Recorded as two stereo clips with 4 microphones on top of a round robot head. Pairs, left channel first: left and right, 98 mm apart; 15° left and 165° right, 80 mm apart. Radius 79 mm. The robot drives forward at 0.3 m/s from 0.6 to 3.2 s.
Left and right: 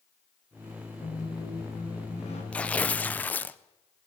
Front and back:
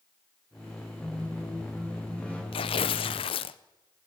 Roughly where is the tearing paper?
Ahead.